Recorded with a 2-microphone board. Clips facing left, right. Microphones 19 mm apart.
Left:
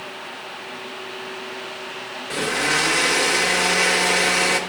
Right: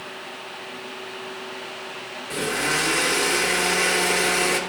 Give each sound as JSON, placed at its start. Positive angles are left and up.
{"t": 2.3, "sound": "a blender", "side_deg": 20, "distance_m": 1.4}